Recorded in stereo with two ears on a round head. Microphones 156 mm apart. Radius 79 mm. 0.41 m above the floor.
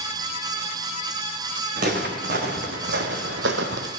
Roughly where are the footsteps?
Right.